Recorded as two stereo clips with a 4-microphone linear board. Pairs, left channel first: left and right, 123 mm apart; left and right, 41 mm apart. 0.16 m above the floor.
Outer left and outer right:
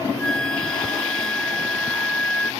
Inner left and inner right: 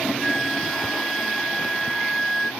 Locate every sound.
0.2 s a flute: 5° left (ahead or behind)